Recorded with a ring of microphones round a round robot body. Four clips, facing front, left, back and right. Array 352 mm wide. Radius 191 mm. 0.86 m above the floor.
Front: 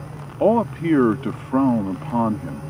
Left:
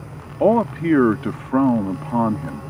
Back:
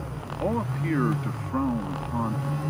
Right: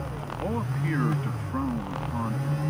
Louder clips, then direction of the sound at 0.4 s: Left 15 dB, front 10 dB; 50° left.